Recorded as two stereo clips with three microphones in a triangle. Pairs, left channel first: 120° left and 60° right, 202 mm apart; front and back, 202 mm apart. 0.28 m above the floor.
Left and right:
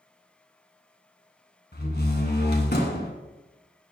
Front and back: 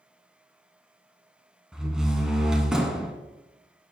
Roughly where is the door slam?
Left.